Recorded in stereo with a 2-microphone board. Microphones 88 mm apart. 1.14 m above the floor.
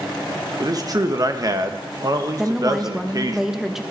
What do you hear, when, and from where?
0.6 s a man speaking: 45° right (ahead or behind), 1.1 m
2.4 s a woman speaking: 5° right (ahead or behind), 1.0 m